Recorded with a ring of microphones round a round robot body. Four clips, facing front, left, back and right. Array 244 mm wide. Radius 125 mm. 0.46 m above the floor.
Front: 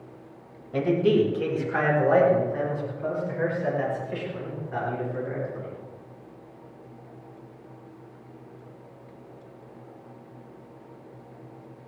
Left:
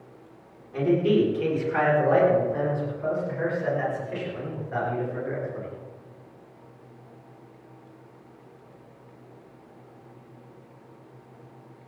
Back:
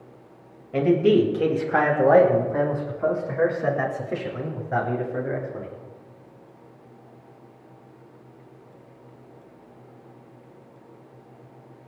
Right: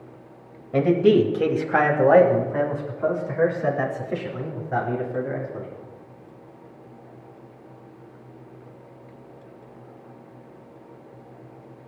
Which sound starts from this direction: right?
A man speaking, at 0.7 s.